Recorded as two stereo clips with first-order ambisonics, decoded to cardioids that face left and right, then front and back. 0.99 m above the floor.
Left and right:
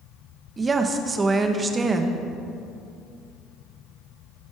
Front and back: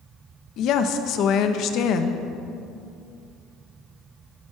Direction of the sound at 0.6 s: 20° right.